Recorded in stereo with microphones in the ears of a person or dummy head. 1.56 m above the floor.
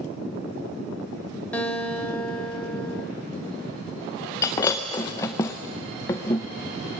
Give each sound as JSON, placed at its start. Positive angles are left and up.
{"t": 1.5, "sound": "a guitar", "side_deg": 10, "distance_m": 2.5}
{"t": 4.4, "sound": "breaking glass", "side_deg": 15, "distance_m": 0.8}